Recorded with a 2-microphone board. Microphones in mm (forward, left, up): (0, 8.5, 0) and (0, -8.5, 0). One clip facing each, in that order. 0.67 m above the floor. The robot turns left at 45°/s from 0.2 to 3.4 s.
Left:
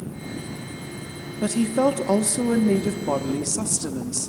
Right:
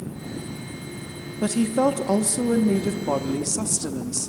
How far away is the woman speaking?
About 0.7 m.